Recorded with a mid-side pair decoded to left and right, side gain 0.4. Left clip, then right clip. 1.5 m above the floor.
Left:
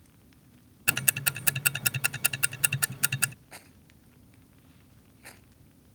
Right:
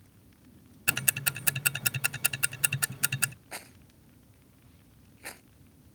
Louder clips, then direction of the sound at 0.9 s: Left 1 dB; 10° left.